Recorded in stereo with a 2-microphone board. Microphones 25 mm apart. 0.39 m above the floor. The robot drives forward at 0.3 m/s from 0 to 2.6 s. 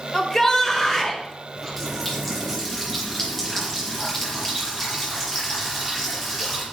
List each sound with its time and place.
0.1 s a shout: 15° left (ahead or behind), 1.2 m
1.6 s a running tap: 10° left (ahead or behind), 5 m